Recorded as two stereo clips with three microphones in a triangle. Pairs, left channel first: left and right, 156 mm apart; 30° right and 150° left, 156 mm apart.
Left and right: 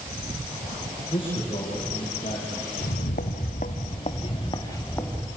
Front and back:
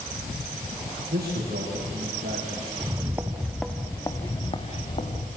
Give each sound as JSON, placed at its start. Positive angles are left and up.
{"t": 1.1, "sound": "a man speaking", "azimuth_deg": 145, "distance_m": 9.0}
{"t": 2.8, "sound": "footsteps", "azimuth_deg": 85, "distance_m": 2.0}